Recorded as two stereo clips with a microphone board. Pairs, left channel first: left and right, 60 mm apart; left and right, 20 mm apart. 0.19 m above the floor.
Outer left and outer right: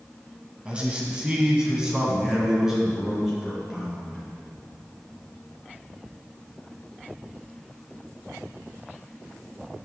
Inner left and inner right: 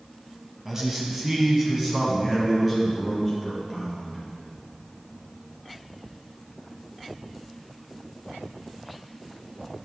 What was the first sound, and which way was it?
A man speaking, 20° right (ahead or behind).